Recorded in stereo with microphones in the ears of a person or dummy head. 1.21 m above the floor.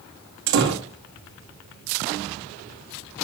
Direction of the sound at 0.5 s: 60° right (ahead or behind).